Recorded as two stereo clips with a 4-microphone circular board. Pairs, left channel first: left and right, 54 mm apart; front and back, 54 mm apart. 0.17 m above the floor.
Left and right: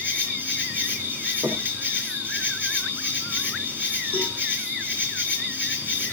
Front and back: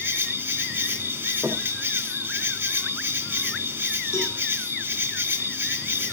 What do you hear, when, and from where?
0.0 s an insect: 135° right, 3 m
1.4 s knocking: 100° right, 5.5 m
4.1 s a cowbell: 25° left, 9.5 m